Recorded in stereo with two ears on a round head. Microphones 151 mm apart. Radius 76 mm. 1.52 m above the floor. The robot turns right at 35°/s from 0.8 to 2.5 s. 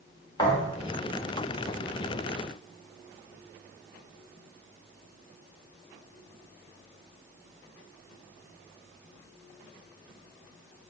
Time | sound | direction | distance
0.4 | a thud | 25° left (ahead or behind) | 1.3 m